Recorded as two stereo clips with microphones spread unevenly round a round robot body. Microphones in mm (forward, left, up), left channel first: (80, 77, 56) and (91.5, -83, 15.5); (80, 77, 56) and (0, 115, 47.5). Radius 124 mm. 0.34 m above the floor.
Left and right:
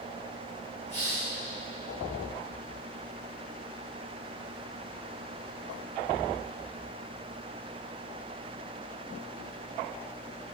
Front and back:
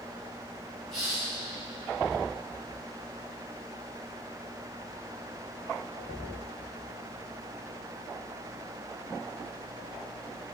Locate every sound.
0.9 s a hiss: 115° right, 7.5 m